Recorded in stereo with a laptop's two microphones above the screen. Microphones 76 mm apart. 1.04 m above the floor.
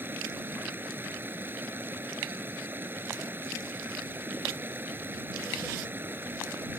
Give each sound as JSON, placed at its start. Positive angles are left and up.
{"t": 0.0, "sound": "running water", "side_deg": -25}